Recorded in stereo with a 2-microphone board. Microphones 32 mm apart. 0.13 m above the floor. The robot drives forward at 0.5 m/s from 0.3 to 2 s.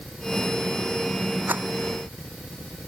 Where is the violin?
No violin in this recording.